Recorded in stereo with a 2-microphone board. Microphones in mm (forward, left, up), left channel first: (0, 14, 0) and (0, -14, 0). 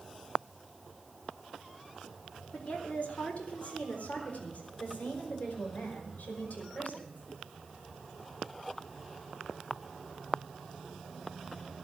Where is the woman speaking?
55° left (ahead or behind), 3.5 m; by 7.2 s 75° left (ahead or behind), 6 m.